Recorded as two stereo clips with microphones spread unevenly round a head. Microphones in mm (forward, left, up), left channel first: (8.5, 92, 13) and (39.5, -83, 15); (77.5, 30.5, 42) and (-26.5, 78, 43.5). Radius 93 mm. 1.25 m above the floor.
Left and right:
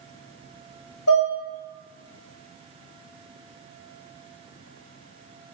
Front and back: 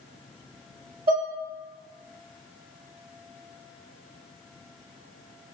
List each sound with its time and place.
1.1 s dishes clattering: 130° left, 1.1 m